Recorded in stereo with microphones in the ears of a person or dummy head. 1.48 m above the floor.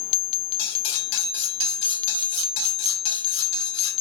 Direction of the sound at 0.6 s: 70° left (ahead or behind).